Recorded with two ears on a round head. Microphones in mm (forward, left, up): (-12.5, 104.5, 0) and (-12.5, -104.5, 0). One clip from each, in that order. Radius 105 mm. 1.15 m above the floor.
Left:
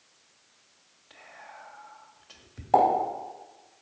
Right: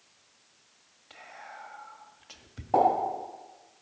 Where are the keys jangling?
I don't hear keys jangling.